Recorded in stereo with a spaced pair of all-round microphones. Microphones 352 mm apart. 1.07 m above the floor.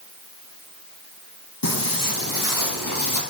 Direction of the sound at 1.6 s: 70° left (ahead or behind).